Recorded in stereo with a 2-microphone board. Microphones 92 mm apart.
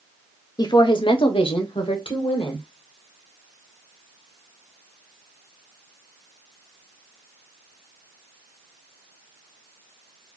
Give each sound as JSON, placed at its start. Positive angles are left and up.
{"t": 0.6, "sound": "a woman speaking", "side_deg": 45, "distance_m": 0.8}